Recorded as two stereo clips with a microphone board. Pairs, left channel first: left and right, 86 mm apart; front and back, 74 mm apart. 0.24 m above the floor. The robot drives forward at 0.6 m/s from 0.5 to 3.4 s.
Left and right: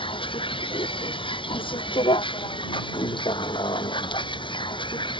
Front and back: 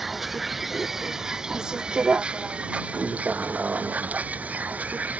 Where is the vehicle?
95° left; by 5.2 s 110° left.